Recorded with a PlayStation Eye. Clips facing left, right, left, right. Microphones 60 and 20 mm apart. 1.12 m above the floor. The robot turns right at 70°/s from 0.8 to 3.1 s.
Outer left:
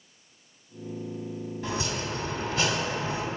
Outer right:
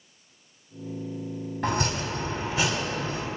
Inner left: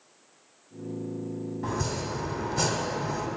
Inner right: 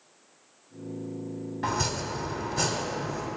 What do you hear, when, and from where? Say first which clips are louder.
1.6 s chopping: outer right 5 dB, inner right 3 dB; 85° right, 1.7 m; by 3.3 s 15° left, 1.7 m